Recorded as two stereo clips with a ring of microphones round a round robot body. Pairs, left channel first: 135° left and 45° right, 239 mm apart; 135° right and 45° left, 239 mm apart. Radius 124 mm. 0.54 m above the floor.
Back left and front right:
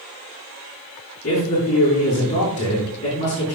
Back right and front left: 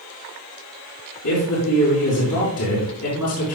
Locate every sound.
1.2 s a man speaking: 165° right, 6 m